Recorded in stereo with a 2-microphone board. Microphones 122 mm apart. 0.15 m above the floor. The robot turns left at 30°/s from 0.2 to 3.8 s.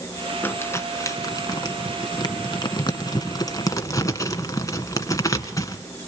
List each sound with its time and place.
0.4 s crumpling: 20° left (ahead or behind), 1.8 m; by 6.1 s 25° left (ahead or behind), 1.8 m